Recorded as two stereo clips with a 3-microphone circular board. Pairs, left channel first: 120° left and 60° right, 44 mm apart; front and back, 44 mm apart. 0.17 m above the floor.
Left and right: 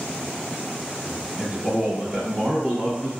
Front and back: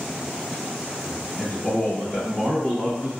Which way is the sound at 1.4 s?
30° right.